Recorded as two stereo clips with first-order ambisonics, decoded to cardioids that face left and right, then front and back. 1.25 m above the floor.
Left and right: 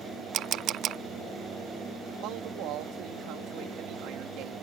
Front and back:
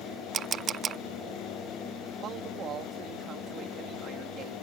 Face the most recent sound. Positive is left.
turn(degrees=-125)